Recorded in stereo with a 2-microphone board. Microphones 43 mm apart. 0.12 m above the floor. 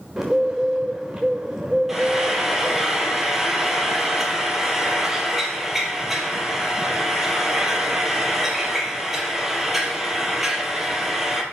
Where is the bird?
20° right (ahead or behind), 7 m.